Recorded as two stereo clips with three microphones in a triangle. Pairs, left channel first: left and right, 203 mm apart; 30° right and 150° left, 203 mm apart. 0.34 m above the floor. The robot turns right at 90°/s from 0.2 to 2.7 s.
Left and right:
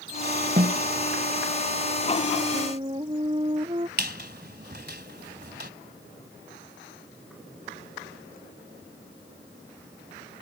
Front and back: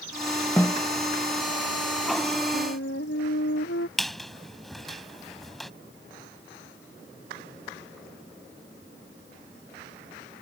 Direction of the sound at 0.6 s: 105° right.